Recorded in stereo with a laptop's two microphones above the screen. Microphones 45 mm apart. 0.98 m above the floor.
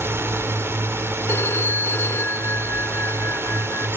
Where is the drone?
70° right (ahead or behind).